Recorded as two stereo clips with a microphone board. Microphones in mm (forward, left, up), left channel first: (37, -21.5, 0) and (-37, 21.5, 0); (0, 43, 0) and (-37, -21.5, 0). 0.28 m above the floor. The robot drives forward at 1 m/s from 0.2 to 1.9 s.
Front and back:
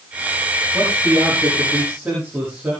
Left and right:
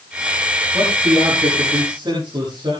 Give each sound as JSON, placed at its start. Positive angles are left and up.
{"t": 0.7, "sound": "a man speaking", "azimuth_deg": -130, "distance_m": 8.0}